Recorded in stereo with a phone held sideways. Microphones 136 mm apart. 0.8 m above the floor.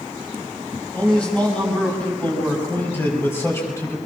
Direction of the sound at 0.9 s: 5° left (ahead or behind).